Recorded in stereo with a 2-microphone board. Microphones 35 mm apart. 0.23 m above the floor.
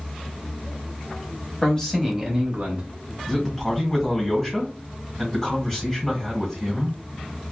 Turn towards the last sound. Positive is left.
turn(degrees=10)  # may be behind; listen again after turning